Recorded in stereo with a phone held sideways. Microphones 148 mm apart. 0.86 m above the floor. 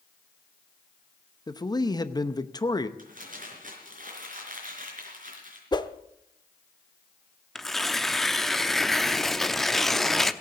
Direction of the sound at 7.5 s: Centre (ahead or behind).